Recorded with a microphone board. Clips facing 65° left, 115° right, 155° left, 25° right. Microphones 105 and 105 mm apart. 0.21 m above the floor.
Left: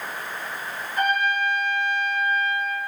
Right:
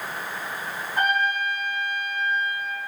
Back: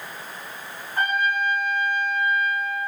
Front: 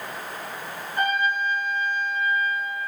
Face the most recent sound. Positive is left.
turn(degrees=-155)